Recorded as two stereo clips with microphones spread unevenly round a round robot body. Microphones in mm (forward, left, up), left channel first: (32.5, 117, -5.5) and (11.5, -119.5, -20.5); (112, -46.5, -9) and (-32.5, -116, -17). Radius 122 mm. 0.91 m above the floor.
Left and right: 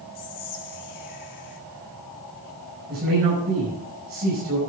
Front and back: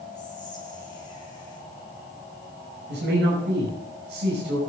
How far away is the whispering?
About 2.0 m.